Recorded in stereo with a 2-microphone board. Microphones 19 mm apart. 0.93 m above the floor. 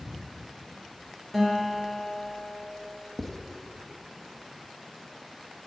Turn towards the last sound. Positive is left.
turn(degrees=10)  # may be behind; listen again after turning